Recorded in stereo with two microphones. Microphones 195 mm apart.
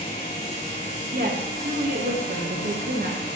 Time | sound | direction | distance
1.1 | a woman speaking | 50° right (ahead or behind) | 1.3 m